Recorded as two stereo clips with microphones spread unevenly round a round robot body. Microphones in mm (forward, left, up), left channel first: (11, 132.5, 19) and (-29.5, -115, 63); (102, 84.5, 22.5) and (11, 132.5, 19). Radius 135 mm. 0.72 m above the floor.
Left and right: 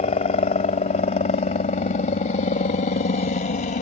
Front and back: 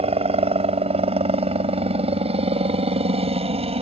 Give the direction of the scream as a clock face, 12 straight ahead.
No scream in this recording.